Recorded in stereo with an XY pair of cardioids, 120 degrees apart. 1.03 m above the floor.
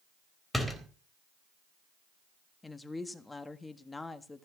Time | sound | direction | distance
0.5 | a door slam | 5° left | 3.5 m
2.6 | a woman speaking | 15° left | 1.5 m